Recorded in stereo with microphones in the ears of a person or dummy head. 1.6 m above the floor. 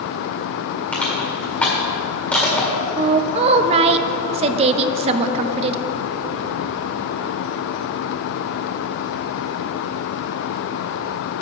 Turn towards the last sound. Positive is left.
turn(degrees=-25)  # may be behind; listen again after turning